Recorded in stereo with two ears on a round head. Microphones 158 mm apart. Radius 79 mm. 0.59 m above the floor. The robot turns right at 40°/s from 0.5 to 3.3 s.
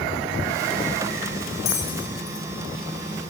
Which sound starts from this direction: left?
A bell, at 1.6 s.